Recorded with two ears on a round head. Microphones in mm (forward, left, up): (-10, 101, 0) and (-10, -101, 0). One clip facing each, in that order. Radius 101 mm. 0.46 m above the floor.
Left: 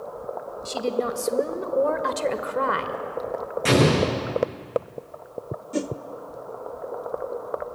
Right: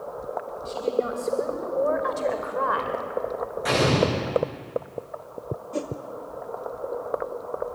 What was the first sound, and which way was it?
A woman speaking, 65° left (ahead or behind).